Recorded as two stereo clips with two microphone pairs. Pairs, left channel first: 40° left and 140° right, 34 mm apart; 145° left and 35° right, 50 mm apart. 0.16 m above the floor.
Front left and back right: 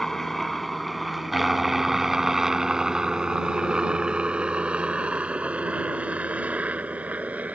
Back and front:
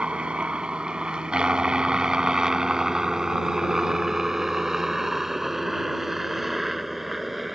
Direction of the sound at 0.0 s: 20° right.